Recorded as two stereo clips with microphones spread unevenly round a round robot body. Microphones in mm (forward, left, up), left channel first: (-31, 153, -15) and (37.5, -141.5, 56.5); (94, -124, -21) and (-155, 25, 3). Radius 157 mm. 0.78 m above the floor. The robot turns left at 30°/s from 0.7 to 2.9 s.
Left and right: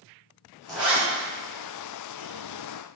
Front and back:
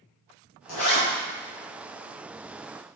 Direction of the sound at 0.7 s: 10° left.